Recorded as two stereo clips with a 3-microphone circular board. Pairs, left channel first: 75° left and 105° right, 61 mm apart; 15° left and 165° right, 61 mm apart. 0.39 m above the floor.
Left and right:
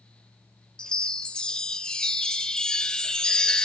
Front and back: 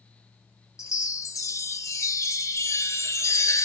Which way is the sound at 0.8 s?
Straight ahead.